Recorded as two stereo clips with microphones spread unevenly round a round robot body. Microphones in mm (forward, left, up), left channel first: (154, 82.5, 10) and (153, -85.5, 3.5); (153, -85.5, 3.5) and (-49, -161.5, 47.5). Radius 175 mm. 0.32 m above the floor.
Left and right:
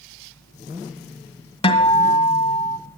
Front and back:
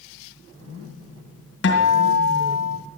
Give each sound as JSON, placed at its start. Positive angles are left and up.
{"t": 1.6, "sound": "a guitar", "azimuth_deg": 35, "distance_m": 1.9}